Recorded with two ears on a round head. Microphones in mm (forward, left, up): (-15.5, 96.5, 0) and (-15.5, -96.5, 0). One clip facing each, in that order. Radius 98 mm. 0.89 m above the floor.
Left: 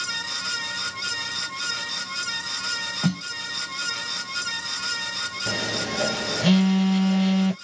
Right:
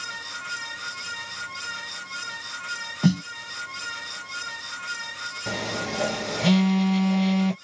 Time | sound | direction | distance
3.0 | a snare drum | 15° right (ahead or behind) | ?
5.5 | a phone buzzing | 5° left (ahead or behind) | ?